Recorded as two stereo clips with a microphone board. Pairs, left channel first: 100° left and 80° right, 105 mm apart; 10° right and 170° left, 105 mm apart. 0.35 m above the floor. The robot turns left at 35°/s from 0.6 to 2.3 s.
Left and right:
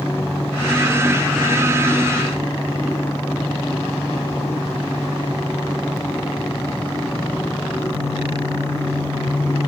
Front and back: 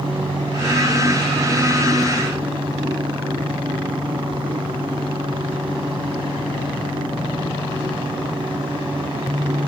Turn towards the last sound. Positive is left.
No sound to turn to.